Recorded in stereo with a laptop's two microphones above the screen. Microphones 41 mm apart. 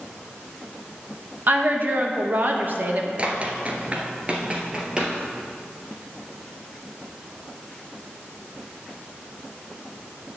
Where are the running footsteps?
30° right (ahead or behind), 1.1 m; by 5.1 s 20° right (ahead or behind), 1.5 m.